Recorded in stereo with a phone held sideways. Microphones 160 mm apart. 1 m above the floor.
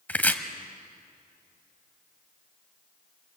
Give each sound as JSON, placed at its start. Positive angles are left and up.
{"t": 0.1, "sound": "chopping", "side_deg": 10, "distance_m": 1.3}